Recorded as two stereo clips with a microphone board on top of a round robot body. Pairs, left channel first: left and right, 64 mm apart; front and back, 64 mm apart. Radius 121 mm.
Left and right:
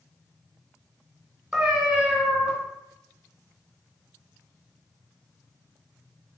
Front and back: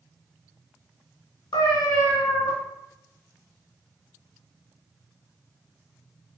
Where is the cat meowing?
10° right, 0.6 m.